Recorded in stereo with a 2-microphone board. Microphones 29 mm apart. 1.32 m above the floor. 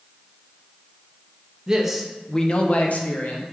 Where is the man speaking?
15° right (ahead or behind), 0.7 m; by 3.4 s 75° left (ahead or behind), 1.0 m.